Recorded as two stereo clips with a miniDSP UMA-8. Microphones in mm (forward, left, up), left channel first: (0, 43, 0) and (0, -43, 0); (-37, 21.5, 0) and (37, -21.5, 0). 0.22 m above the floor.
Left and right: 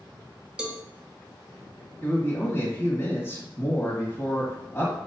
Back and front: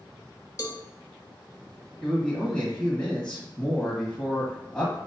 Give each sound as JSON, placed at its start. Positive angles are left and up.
{"t": 0.6, "sound": "a cowbell", "azimuth_deg": -170, "distance_m": 0.7}
{"t": 2.0, "sound": "a man speaking", "azimuth_deg": 80, "distance_m": 1.3}